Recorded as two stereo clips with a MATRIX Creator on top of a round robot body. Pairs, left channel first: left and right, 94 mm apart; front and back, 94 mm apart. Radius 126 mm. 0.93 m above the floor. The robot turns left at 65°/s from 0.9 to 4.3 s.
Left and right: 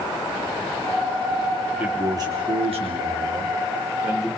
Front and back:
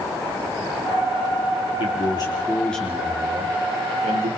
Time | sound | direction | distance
1.8 | a man speaking | 20° right | 3.5 m